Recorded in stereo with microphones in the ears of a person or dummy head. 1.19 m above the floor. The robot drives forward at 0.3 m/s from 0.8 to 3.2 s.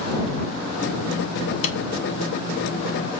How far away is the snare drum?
About 1.1 m.